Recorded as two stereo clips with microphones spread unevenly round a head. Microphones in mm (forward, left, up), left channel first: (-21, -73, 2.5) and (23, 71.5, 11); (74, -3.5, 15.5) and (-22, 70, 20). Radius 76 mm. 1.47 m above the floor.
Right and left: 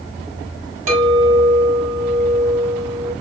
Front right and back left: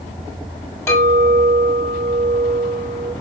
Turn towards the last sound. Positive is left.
turn(degrees=30)